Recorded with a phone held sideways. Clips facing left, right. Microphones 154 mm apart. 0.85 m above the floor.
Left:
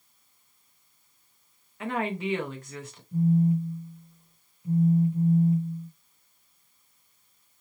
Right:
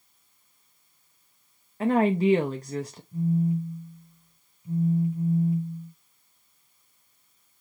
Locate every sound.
1.8 s a woman speaking: 35° right (ahead or behind), 0.6 m
3.1 s a phone buzzing: 35° left (ahead or behind), 2.5 m